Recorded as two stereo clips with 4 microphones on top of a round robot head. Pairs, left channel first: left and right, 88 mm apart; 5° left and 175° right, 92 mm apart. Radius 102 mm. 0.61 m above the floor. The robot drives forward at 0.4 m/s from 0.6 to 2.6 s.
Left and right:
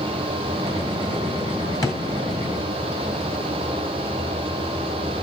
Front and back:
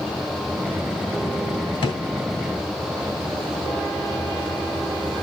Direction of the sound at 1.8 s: 35° left.